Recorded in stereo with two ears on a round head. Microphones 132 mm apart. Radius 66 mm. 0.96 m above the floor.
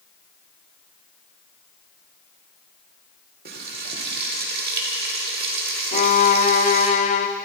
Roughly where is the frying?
Right.